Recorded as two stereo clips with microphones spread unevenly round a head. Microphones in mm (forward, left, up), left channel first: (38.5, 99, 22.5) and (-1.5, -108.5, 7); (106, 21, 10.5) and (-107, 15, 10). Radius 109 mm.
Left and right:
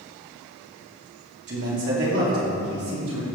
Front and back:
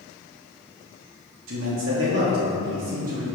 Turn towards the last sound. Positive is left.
turn(degrees=-125)